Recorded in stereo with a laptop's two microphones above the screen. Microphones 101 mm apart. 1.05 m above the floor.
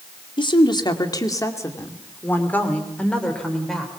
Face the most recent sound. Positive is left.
turn(degrees=5)  # may be behind; listen again after turning